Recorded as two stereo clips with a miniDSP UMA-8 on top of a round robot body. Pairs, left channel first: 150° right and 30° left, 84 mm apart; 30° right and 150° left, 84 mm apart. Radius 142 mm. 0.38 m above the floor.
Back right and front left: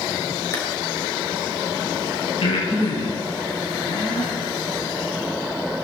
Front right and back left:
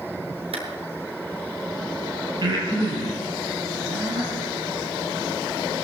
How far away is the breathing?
About 10 m.